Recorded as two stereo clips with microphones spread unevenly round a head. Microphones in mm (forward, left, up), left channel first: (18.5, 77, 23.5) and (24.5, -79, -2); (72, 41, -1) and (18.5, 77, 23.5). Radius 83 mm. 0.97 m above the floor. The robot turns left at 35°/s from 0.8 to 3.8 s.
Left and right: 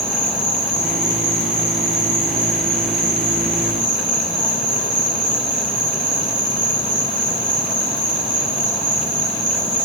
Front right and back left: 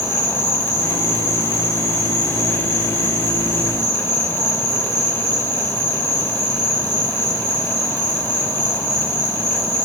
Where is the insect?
5° left, 2.5 m; by 9.9 s 100° right, 2.5 m.